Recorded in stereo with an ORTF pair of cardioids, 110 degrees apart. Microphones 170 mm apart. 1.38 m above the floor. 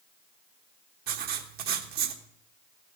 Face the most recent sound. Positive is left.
turn(degrees=-70)